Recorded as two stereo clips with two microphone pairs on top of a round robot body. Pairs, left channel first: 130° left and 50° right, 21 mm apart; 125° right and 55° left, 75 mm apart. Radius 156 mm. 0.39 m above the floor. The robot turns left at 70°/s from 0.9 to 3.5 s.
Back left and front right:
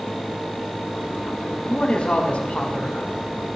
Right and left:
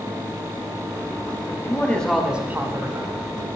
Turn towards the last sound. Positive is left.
turn(degrees=55)